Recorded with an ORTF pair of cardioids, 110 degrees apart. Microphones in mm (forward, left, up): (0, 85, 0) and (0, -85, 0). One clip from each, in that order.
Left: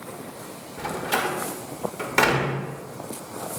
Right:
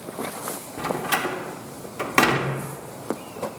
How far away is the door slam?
About 1.0 m.